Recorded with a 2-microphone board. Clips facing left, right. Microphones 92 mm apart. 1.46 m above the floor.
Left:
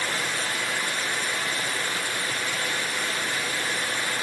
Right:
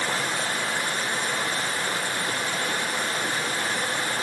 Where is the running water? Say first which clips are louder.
Right 2 dB; 30° right (ahead or behind), 1.0 m.